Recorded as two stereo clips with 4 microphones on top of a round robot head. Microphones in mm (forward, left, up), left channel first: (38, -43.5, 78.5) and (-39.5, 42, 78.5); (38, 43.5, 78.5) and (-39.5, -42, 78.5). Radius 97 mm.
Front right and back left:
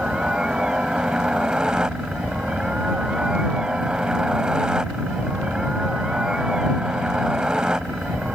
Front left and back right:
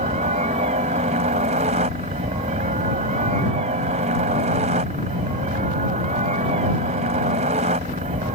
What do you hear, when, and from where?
0.0 s a helicopter: 145° right